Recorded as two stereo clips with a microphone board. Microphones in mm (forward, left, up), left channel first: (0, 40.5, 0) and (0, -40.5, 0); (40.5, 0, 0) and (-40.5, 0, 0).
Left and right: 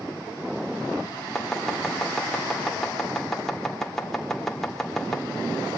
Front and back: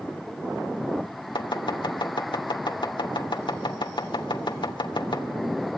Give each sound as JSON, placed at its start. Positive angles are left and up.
{"t": 1.4, "sound": "chopping", "azimuth_deg": 5, "distance_m": 2.0}